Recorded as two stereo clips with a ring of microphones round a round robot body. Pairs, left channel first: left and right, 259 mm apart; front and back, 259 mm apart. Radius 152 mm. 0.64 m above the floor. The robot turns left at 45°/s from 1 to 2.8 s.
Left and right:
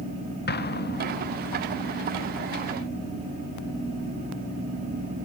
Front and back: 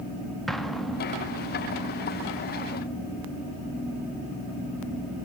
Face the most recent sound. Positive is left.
turn(degrees=10)